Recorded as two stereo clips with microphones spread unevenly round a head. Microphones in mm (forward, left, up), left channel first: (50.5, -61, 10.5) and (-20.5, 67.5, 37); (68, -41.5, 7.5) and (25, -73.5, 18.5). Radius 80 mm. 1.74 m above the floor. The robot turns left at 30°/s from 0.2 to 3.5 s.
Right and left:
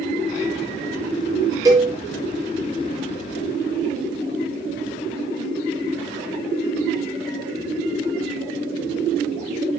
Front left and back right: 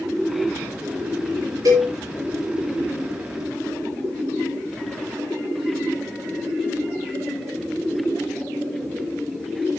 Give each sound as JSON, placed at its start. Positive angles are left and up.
{"t": 1.6, "sound": "a cowbell", "azimuth_deg": -175, "distance_m": 6.0}